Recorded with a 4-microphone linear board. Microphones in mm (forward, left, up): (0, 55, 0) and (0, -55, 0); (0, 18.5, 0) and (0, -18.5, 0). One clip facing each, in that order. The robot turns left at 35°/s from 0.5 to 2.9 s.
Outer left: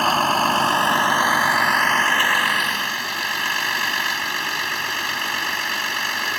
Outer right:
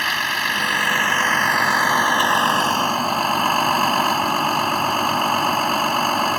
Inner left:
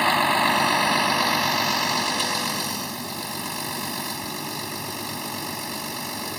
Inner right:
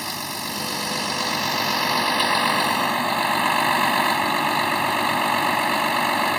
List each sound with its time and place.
0.0 s a vehicle: 40° left; by 6.4 s 45° right